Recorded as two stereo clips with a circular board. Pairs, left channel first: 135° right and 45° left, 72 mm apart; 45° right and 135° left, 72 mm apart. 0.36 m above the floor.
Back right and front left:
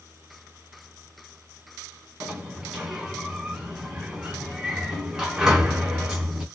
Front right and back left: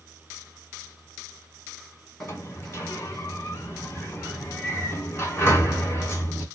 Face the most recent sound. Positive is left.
turn(degrees=-20)